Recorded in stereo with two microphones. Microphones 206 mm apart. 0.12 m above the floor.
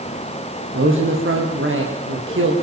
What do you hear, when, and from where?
0.7 s a man speaking: 70° right (ahead or behind), 6.5 m